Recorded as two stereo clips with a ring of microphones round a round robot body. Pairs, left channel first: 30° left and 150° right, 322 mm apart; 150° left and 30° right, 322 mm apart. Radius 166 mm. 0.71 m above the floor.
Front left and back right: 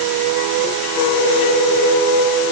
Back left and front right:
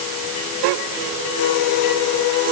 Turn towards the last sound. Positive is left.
No sound to turn to.